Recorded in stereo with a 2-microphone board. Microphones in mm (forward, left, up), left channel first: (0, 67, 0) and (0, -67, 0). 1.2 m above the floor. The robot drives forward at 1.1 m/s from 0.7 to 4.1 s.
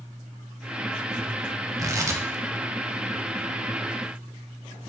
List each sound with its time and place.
1.8 s tearing paper: 25° right (ahead or behind), 1.1 m; by 4.8 s 10° right (ahead or behind), 3 m